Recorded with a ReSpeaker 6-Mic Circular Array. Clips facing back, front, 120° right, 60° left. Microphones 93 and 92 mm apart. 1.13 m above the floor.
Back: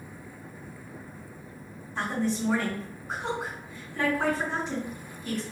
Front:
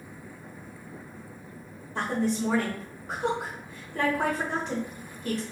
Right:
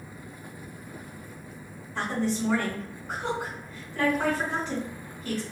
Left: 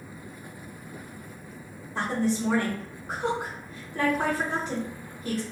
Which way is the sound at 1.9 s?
10° left.